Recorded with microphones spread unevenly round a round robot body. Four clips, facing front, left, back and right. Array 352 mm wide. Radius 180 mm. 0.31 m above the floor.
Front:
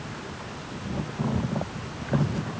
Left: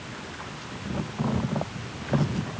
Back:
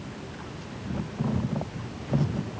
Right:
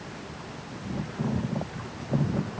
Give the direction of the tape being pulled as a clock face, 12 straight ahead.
I don't hear tape being pulled.